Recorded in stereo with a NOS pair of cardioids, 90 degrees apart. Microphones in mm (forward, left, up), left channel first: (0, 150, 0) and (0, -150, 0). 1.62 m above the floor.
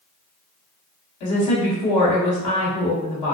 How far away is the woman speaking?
About 1.0 m.